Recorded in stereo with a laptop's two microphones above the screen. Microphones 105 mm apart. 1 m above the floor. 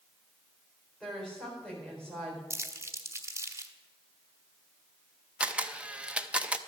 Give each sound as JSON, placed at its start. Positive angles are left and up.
{"t": 1.0, "sound": "a woman speaking", "side_deg": 10, "distance_m": 4.0}
{"t": 2.5, "sound": "crumpling", "side_deg": -25, "distance_m": 1.0}
{"t": 5.4, "sound": "a camera shutter", "side_deg": -10, "distance_m": 0.6}